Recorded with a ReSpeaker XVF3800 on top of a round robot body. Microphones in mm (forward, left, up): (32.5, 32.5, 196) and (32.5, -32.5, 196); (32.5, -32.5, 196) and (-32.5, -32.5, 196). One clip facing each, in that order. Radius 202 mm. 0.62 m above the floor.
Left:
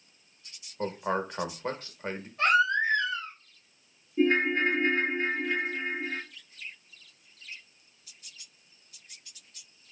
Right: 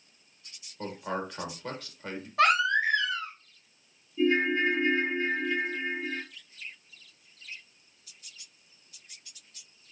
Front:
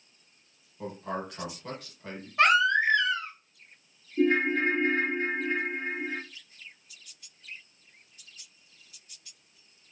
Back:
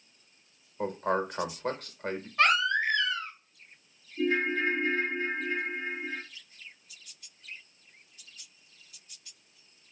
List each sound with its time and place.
0.8 s a man speaking: 145° left, 1.1 m
2.4 s a baby crying: 75° right, 1.0 m
4.2 s a ringtone: 45° left, 0.9 m